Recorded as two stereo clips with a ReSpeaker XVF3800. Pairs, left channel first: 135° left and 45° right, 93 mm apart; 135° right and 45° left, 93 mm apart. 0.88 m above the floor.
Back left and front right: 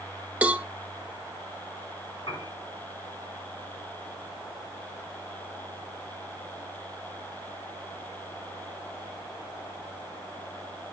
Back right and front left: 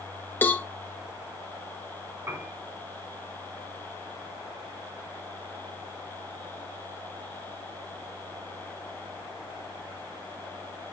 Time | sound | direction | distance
0.4 | a cowbell | 95° right | 0.6 m
2.3 | a piano | 110° left | 5 m